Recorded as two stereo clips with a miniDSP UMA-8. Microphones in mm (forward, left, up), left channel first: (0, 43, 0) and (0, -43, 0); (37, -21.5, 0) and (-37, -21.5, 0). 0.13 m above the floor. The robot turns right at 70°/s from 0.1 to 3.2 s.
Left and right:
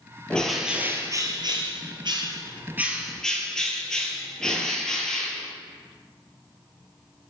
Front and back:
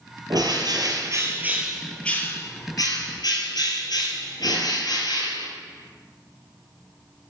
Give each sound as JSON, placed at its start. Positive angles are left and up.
{"t": 0.3, "sound": "a bird", "azimuth_deg": 165, "distance_m": 1.2}